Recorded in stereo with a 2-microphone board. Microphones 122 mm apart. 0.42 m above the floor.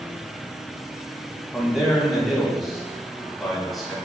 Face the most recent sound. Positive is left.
turn(degrees=0)  # may be behind; listen again after turning